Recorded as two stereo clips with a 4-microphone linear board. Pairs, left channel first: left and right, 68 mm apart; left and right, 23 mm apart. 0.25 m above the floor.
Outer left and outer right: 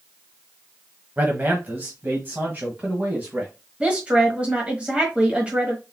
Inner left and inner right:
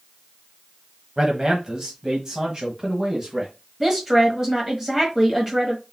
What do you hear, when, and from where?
1.2 s a man speaking: 30° right (ahead or behind), 1.2 m
3.8 s a woman speaking: 20° right (ahead or behind), 1.4 m